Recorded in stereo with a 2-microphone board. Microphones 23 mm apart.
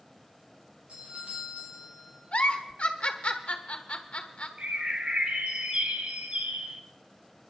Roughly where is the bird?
Right.